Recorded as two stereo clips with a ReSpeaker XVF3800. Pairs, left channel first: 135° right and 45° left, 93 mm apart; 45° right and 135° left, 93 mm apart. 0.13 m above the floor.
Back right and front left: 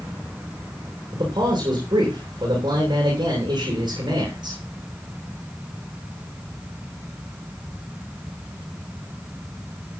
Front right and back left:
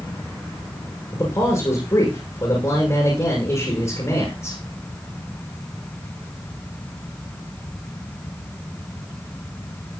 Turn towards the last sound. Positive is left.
turn(degrees=5)